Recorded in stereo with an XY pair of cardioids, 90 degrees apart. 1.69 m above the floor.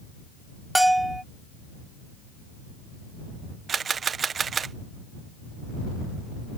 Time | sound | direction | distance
0.8 | a bell | 10° right | ?
3.7 | a camera shutter | 50° right | ?